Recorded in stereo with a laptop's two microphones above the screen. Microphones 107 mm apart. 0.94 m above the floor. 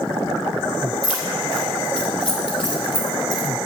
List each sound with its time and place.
1.0 s keys jangling: 70° left (ahead or behind), 3 m; by 3.5 s 45° left (ahead or behind), 2.5 m